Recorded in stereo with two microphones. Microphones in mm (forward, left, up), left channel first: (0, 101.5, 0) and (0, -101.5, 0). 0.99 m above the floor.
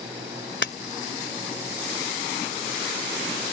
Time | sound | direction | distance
0.6 | breaking glass | 65° left (ahead or behind) | ?